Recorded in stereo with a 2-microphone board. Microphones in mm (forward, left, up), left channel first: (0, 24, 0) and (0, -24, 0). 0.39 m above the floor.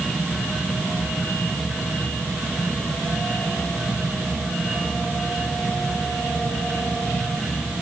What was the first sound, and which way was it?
Only background noise.